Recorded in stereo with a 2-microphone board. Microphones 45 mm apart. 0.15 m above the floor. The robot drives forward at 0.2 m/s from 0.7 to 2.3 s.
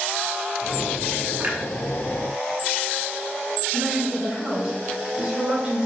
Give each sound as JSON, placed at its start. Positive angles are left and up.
{"t": 1.4, "sound": "a clunk", "side_deg": -30, "distance_m": 0.5}
{"t": 3.7, "sound": "a woman speaking", "side_deg": -20, "distance_m": 1.2}